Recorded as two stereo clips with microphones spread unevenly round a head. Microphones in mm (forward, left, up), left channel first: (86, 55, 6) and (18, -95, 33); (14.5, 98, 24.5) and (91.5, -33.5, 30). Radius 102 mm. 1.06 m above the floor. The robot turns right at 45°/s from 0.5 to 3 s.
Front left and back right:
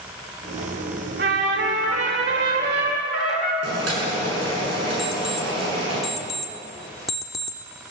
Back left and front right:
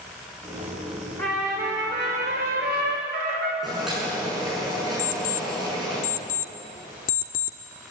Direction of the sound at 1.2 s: 155° right.